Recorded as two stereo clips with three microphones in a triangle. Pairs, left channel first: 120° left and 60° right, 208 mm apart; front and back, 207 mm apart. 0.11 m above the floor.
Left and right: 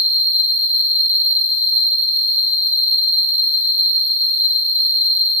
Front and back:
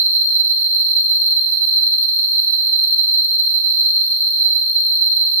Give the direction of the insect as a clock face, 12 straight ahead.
5 o'clock.